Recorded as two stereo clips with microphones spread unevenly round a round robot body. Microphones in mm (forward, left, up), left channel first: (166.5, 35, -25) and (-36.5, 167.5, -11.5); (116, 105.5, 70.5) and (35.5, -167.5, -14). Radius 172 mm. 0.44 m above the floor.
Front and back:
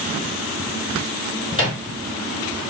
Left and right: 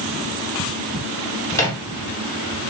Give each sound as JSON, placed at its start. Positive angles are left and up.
{"t": 1.5, "sound": "a microwave", "azimuth_deg": -35, "distance_m": 0.6}